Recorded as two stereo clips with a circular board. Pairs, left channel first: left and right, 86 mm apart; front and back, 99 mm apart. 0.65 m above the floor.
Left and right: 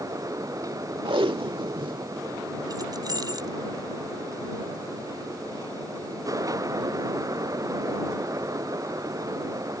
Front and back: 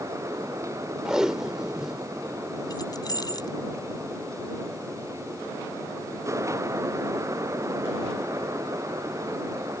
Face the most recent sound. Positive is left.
turn(degrees=-45)